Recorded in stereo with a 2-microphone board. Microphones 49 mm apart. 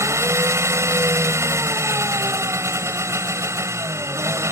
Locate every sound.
0.0 s an engine running: 80° right